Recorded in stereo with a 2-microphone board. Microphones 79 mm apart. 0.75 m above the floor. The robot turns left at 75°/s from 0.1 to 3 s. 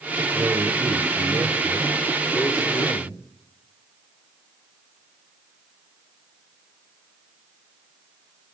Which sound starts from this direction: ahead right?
A man speaking, at 0.3 s.